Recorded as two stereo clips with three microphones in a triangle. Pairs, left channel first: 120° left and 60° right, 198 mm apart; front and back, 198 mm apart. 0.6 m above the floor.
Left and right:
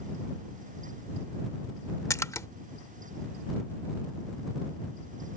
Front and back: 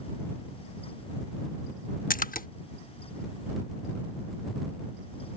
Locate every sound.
2.1 s a splash: 45° left